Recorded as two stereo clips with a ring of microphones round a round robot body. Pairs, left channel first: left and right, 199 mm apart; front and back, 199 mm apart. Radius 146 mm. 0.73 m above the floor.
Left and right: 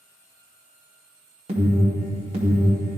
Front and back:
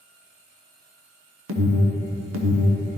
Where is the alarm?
155° right, 0.9 m.